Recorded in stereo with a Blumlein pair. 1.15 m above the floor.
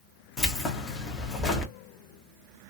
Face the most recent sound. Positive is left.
turn(degrees=20)